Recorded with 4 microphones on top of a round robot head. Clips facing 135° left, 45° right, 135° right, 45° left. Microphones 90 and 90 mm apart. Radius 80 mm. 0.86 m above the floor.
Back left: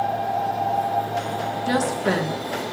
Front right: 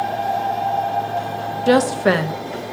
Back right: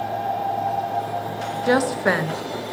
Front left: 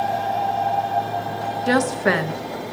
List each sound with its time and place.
1.7 s a woman speaking: 50° right, 0.7 m